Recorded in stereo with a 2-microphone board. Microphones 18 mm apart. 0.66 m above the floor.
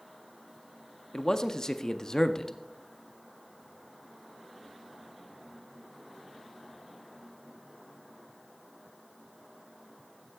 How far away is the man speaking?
About 0.6 m.